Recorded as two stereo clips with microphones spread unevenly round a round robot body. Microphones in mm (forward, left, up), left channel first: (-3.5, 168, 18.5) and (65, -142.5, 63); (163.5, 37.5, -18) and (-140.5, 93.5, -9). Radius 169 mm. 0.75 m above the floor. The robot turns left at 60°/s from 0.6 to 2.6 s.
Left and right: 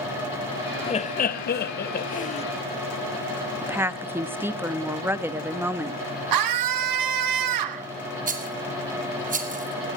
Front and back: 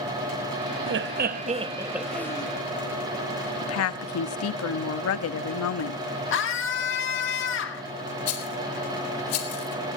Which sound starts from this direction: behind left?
Laughter, at 0.9 s.